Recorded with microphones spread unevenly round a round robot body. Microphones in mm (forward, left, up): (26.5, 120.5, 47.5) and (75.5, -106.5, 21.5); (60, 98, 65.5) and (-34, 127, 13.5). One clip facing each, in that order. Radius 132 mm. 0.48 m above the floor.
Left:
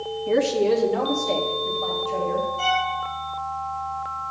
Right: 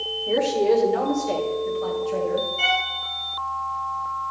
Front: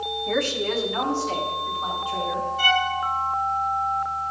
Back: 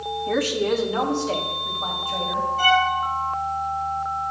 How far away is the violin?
About 4.5 m.